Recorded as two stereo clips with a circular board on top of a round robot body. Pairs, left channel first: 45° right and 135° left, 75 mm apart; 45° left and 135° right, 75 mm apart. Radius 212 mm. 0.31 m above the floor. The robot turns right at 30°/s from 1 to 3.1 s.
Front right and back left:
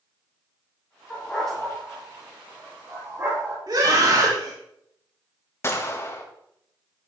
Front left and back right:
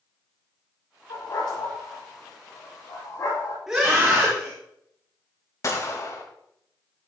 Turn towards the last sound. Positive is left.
turn(degrees=5)